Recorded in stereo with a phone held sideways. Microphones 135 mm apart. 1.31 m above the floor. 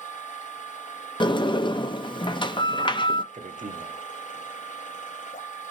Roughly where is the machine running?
Left.